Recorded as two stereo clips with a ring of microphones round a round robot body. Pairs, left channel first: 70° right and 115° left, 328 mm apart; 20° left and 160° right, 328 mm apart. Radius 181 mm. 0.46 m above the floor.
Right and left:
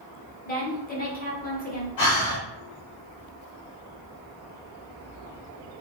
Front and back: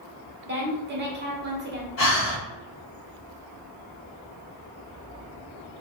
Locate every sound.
0.5 s a woman speaking: 115° right, 1.2 m
2.0 s breathing: 30° right, 1.5 m